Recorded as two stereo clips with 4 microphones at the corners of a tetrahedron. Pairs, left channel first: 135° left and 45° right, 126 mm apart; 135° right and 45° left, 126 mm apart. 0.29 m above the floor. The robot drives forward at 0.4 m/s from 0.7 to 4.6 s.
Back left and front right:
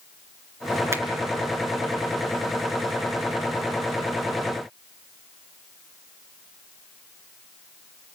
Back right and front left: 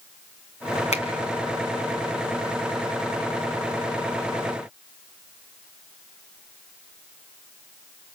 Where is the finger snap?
115° right, 2.5 m.